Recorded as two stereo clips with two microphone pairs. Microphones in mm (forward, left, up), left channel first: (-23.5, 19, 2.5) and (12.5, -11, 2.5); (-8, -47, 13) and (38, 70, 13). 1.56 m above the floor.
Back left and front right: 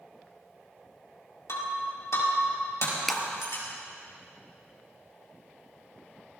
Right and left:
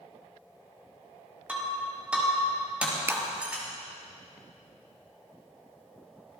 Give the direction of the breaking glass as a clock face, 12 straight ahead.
7 o'clock.